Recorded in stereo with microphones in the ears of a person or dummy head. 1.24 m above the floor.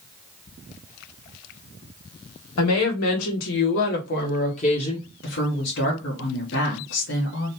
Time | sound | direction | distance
2.6 | a woman speaking | 80° left | 1.2 m
5.2 | a woman speaking | 55° left (ahead or behind) | 1.0 m